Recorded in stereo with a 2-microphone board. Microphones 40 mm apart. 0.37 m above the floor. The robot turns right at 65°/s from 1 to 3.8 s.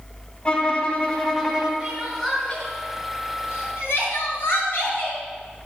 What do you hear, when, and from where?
0.5 s a violin: 155° left, 2 m; by 1.7 s 160° right, 2 m
1.8 s crying: 25° right (ahead or behind), 3.5 m; by 5.2 s 70° left (ahead or behind), 3.5 m